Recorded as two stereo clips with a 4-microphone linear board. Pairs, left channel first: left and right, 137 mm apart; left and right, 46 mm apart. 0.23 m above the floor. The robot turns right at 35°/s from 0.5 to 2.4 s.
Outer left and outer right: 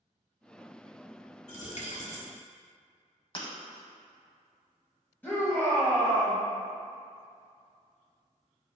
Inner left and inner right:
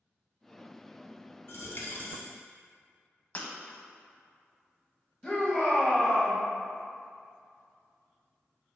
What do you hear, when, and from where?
1.5 s a dropped coin: 60° left (ahead or behind), 1.0 m; by 2.3 s 55° left (ahead or behind), 1.0 m
3.4 s breaking glass: 40° left (ahead or behind), 0.8 m
5.2 s a shout: 15° left (ahead or behind), 1.3 m